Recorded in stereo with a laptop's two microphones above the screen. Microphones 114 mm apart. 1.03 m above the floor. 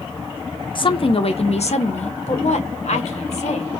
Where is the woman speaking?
45° left (ahead or behind), 1.0 m; by 3.7 s 70° left (ahead or behind), 1.7 m.